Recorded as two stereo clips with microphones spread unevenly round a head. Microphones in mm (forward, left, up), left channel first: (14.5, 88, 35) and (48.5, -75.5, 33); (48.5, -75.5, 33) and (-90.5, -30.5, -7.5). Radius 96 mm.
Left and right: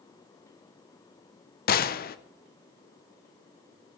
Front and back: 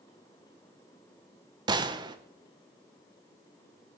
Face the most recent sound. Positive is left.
turn(degrees=115)